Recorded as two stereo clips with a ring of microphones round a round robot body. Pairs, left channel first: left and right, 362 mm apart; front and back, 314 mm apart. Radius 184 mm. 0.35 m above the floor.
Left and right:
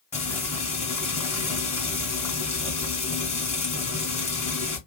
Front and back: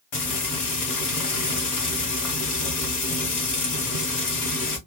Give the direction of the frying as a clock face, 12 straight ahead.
11 o'clock.